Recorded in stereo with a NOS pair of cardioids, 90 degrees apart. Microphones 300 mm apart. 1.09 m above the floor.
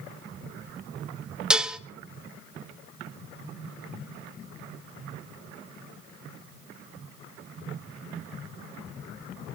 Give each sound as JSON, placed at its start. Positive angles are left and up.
{"t": 1.5, "sound": "dishes clattering", "azimuth_deg": -5, "distance_m": 0.8}